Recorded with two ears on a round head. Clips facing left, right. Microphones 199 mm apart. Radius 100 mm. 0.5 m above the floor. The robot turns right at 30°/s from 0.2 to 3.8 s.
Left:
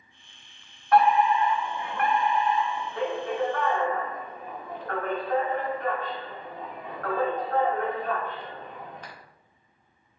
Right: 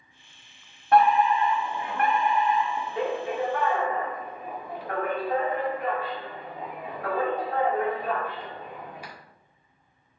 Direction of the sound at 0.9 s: 25° right (ahead or behind).